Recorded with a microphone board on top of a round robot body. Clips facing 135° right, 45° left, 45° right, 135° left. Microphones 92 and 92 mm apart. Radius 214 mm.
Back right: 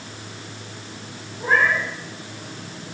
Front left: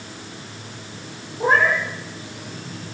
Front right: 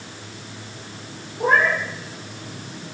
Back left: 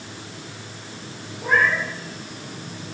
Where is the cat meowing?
10° right, 8 m.